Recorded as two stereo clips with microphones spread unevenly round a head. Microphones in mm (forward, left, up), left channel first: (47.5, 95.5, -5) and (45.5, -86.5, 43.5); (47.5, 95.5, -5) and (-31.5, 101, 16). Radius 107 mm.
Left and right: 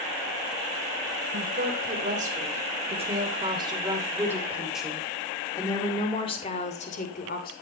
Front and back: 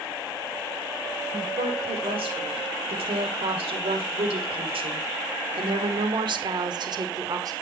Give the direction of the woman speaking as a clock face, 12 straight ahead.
5 o'clock.